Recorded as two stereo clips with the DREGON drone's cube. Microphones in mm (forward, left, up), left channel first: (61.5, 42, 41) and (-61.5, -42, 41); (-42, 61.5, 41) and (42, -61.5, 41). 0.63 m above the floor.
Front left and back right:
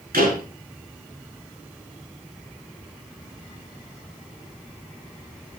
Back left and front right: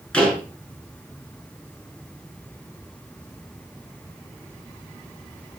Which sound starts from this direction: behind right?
A door slam, at 0.1 s.